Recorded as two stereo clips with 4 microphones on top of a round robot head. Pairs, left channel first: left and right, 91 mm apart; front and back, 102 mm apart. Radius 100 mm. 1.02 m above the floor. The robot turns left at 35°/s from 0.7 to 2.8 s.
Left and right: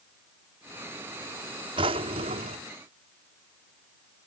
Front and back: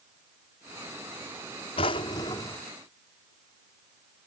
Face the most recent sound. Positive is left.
turn(degrees=-80)